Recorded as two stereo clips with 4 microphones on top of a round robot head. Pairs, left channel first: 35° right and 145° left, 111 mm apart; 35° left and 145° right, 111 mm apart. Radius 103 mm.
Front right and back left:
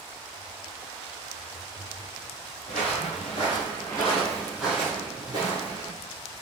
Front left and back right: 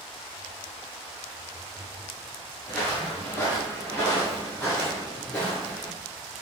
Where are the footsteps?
40° right, 1.5 m; by 5.9 s 115° left, 1.5 m.